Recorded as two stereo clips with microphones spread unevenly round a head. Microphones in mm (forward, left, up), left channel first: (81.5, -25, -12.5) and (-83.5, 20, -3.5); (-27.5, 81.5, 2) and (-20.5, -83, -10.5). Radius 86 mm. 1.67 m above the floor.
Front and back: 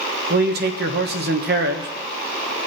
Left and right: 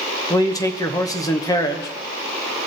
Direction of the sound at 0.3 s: 155° left.